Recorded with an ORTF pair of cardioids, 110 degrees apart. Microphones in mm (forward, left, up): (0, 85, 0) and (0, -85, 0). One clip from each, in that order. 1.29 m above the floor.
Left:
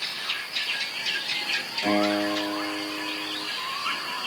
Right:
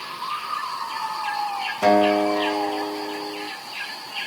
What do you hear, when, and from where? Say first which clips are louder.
1.8 s a guitar: right 8 dB; 70° right, 4.5 m